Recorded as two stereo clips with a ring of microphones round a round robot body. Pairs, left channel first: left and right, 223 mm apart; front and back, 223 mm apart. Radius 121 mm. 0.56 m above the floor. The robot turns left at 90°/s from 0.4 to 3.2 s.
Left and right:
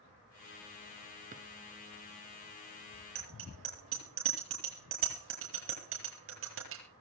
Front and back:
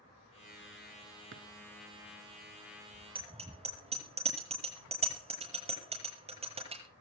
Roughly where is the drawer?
Behind right.